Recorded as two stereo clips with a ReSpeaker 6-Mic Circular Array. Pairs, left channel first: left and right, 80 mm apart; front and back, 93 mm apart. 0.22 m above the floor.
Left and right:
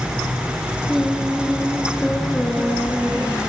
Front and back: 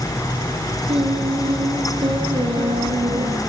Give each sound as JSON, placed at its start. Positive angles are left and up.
{"t": 0.9, "sound": "singing", "azimuth_deg": 180, "distance_m": 3.5}